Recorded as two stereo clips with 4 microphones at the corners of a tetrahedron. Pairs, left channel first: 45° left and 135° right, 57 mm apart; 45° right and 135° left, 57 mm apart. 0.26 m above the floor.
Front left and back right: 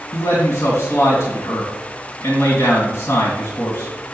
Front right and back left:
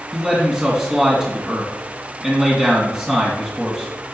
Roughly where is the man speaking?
Ahead left.